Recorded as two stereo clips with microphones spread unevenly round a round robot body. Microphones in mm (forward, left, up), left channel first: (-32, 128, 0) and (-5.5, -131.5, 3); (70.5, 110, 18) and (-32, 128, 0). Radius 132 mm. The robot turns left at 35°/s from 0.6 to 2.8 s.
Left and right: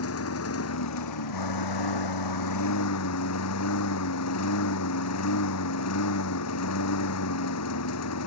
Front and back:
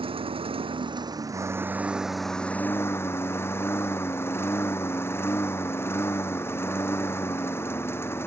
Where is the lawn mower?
135° left; by 8.3 s 55° left.